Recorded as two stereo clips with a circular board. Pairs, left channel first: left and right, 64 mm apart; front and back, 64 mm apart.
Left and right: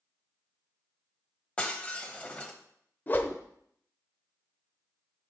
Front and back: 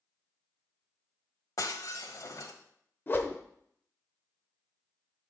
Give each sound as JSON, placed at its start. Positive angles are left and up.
{"t": 1.6, "sound": "breaking glass", "azimuth_deg": 20, "distance_m": 1.1}
{"t": 3.1, "sound": "a whoosh", "azimuth_deg": 40, "distance_m": 0.9}